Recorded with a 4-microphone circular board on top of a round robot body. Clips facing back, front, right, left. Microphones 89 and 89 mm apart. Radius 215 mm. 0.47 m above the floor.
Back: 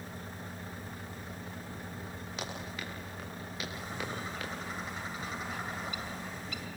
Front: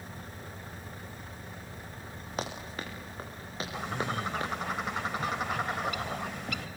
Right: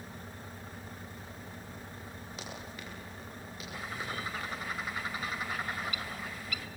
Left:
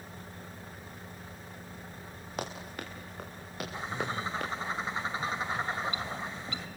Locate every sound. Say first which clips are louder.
2.4 s running footsteps: front 5 dB, left 8 dB; 50° left, 7 m; by 4.5 s 60° left, 7 m
3.7 s a bird: front 8 dB, left 4 dB; 25° left, 1.8 m